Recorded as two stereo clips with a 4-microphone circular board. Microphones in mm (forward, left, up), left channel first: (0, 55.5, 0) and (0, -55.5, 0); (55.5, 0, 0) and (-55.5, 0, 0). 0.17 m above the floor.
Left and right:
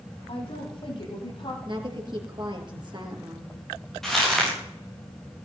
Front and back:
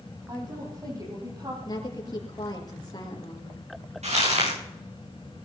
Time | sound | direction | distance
0.3 | a woman speaking | 125° left | 7.5 m
1.6 | a woman speaking | 50° right | 3.5 m
4.0 | crumpling | straight behind | 10 m